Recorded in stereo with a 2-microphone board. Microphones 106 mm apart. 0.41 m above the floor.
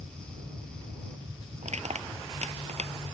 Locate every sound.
0.0 s an aircraft: 35° right (ahead or behind)
1.6 s crushing: 85° right